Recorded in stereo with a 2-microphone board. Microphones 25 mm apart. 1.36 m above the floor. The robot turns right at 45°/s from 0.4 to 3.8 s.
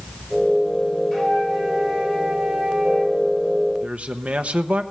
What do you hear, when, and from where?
1.1 s a flute: 160° left, 3 m; by 3.2 s 110° right, 3 m
3.8 s a man speaking: 75° right (ahead or behind), 0.9 m